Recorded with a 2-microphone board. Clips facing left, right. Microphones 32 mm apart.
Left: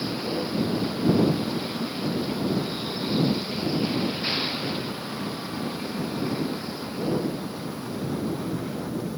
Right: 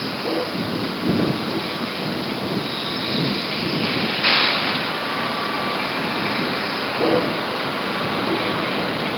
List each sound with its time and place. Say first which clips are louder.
0.0 s a vehicle: right 5 dB; 30° right (ahead or behind); by 9.2 s 70° right (ahead or behind)